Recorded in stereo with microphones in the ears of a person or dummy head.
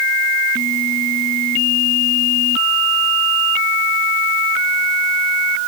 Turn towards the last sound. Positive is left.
No sound to turn to.